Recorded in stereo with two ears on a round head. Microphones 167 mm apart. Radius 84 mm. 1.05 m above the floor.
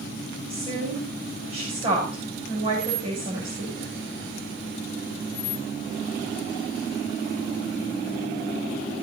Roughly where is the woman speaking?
Right.